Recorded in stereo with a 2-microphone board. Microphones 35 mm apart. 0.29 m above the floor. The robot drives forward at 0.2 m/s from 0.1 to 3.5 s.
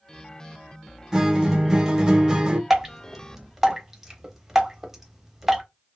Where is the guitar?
15° right (ahead or behind), 0.6 m; by 2.6 s 20° right (ahead or behind), 0.5 m.